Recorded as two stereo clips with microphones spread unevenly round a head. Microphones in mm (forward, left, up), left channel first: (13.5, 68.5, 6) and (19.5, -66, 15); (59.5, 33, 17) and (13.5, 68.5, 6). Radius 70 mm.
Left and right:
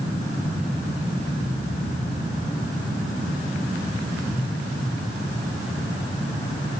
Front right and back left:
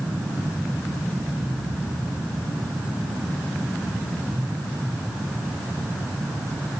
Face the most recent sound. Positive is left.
No sound to turn to.